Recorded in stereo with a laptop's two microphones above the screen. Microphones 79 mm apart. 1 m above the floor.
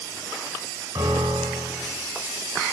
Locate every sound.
0.9 s a piano: 60° right (ahead or behind), 6 m